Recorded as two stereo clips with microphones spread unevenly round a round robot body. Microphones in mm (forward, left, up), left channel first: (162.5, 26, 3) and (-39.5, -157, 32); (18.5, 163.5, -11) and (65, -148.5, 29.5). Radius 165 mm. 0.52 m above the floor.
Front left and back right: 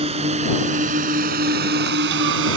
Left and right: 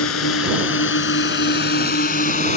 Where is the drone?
150° left; by 2.6 s 170° left.